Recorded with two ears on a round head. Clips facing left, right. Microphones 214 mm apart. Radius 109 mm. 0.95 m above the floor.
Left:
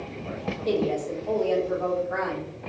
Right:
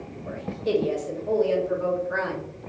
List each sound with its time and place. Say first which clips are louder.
0.3 s a woman speaking: right 1 dB; 15° right (ahead or behind), 0.9 m